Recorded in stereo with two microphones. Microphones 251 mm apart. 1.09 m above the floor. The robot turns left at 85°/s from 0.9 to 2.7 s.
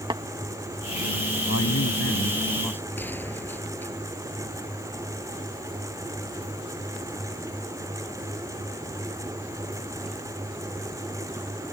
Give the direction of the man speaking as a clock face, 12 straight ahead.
8 o'clock.